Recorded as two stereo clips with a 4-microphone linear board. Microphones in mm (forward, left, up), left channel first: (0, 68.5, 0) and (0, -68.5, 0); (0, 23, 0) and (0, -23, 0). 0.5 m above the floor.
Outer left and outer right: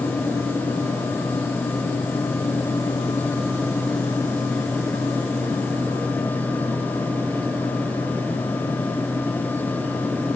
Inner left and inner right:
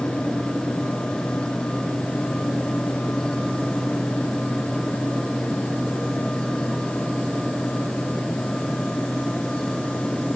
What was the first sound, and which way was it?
Only background noise.